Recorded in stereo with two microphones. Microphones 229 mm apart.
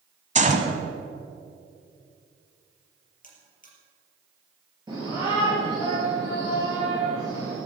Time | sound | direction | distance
0.3 | a gunshot | 30° right (ahead or behind) | 1.3 m
3.2 | a buzzer | 35° left (ahead or behind) | 4 m
4.9 | a shout | 20° right (ahead or behind) | 5 m